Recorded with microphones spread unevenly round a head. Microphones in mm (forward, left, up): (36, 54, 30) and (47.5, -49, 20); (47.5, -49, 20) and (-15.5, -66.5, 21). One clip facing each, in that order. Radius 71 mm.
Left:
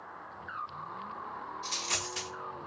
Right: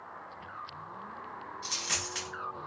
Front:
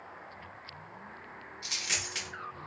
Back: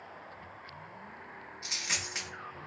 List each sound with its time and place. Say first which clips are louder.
1.6 s a dropped coin: left 1 dB, even; 105° right, 1.7 m